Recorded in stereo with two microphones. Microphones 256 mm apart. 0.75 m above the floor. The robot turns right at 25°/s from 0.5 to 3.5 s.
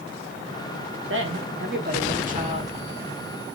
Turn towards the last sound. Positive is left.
turn(degrees=-5)